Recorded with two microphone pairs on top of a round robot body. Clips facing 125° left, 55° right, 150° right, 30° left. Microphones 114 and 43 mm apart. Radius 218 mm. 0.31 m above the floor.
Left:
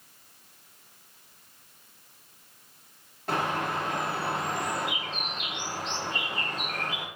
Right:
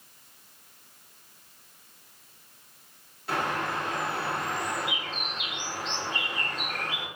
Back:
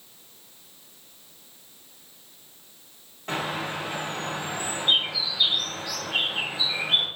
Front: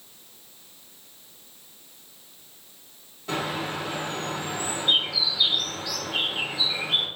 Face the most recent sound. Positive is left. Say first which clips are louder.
# left 1 dB, even
turn(degrees=165)